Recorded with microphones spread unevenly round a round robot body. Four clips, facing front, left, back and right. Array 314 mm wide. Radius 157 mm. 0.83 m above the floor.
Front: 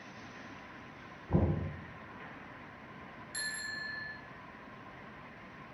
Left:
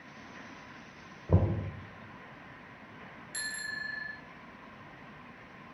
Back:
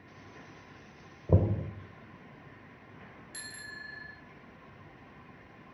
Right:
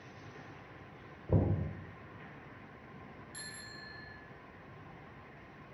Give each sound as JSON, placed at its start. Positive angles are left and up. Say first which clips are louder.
{"t": 1.3, "sound": "knocking", "louder": "left 2 dB, back 3 dB", "azimuth_deg": 170, "distance_m": 2.5}
{"t": 3.3, "sound": "a bicycle bell", "louder": "left 9 dB, front 6 dB", "azimuth_deg": 135, "distance_m": 5.0}